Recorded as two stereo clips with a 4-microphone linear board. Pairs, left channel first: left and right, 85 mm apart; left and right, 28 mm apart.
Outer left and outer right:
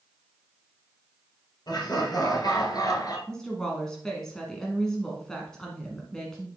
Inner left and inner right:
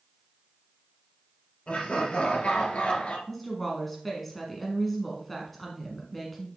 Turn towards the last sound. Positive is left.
turn(degrees=5)  # may be behind; listen again after turning